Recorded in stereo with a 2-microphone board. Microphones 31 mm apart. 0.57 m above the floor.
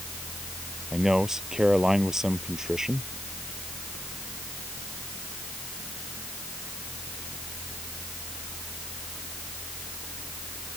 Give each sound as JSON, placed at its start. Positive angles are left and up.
{"t": 0.9, "sound": "a man speaking", "side_deg": -15}